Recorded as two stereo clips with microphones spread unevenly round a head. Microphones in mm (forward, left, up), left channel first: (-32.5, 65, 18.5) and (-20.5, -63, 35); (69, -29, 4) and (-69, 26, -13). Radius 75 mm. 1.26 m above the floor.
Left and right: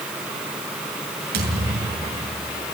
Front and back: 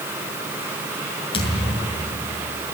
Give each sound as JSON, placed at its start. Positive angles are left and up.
{"t": 1.3, "sound": "a thud", "azimuth_deg": -75, "distance_m": 7.0}